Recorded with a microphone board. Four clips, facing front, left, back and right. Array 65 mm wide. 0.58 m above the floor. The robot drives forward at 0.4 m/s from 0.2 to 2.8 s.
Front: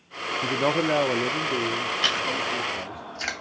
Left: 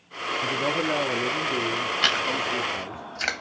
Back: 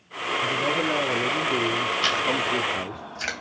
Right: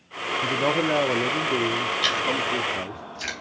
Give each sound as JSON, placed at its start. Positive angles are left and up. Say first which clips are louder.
{"t": 0.4, "sound": "a man speaking", "louder": "right 3 dB, front 2 dB", "azimuth_deg": -20, "distance_m": 0.7}
{"t": 2.0, "sound": "chewing", "louder": "right 1 dB, back 2 dB", "azimuth_deg": 90, "distance_m": 2.5}